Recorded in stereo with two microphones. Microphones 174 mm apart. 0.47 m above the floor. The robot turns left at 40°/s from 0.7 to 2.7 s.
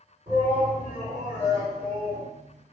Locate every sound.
0.3 s a shout: 125° right, 1.8 m; by 2.3 s 170° left, 1.8 m